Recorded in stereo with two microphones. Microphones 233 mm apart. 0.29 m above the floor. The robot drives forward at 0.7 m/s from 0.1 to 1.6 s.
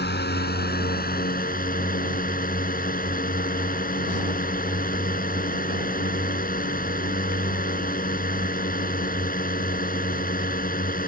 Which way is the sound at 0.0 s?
45° left (ahead or behind).